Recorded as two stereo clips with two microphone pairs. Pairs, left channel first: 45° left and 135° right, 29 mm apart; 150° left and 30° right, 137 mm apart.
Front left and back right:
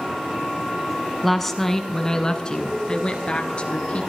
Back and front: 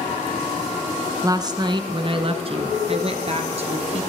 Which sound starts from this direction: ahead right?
A woman speaking, at 1.2 s.